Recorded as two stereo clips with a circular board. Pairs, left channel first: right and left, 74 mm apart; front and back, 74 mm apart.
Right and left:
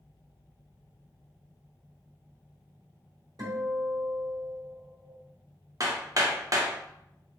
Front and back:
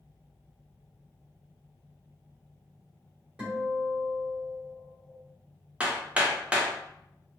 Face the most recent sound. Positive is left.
turn(degrees=110)